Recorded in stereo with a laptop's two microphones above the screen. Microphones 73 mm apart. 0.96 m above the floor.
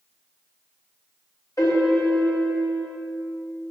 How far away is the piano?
About 1.3 m.